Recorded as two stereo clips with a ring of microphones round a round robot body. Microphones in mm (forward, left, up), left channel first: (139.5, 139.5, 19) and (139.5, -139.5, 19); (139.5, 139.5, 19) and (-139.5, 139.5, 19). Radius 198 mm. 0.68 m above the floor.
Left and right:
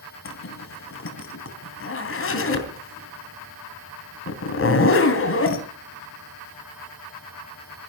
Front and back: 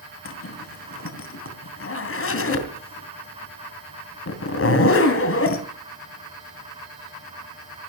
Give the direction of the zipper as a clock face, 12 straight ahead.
11 o'clock.